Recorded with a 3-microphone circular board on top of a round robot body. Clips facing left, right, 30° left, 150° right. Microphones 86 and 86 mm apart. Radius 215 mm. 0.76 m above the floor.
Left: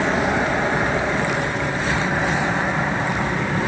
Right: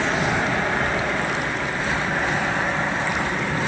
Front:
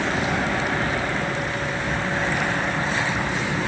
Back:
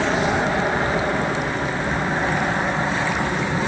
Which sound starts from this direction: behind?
An aircraft, at 0.0 s.